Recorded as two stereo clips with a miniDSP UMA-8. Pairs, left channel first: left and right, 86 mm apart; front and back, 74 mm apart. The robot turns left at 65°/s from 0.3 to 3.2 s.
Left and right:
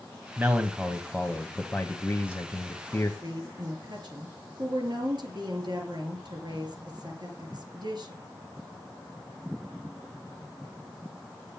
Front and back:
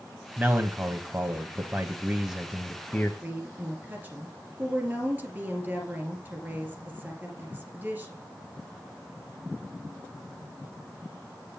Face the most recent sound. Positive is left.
turn(degrees=-115)